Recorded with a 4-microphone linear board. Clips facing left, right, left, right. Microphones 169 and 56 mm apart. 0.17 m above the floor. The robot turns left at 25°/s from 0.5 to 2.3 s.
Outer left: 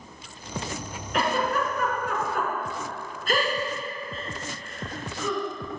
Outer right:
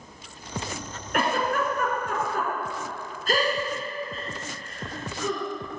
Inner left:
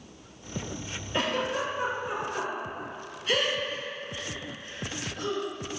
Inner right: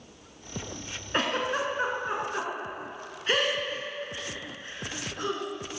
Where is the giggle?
50° right (ahead or behind), 1.8 m; by 5.5 s 35° right (ahead or behind), 1.8 m.